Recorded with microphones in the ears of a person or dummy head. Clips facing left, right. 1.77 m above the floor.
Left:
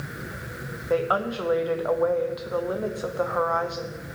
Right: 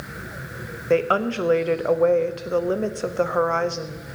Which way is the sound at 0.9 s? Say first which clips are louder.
Right 4 dB; 35° right (ahead or behind).